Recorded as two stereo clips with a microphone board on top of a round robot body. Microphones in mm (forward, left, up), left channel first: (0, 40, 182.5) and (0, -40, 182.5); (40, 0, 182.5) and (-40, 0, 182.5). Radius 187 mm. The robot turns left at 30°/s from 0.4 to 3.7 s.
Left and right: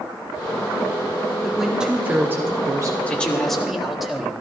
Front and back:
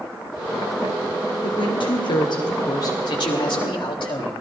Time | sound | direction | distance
1.4 | a woman speaking | straight ahead | 1.9 m
3.1 | a man speaking | 20° left | 3.5 m